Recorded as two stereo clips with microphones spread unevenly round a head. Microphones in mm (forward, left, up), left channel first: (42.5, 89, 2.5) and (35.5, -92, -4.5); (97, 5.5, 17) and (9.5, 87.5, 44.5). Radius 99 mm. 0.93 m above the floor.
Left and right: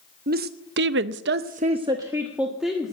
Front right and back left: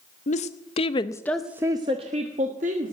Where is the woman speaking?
55° right, 1.1 m; by 2.9 s 175° left, 1.7 m.